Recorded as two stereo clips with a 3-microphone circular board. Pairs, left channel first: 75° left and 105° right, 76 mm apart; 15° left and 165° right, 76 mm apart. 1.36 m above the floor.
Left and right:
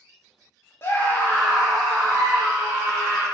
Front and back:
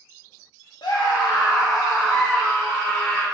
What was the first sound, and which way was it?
A scream, 20° left.